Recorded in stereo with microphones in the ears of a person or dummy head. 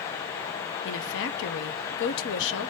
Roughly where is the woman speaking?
Left.